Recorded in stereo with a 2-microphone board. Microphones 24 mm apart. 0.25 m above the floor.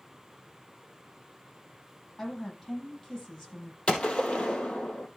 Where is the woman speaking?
20° left (ahead or behind), 8 m.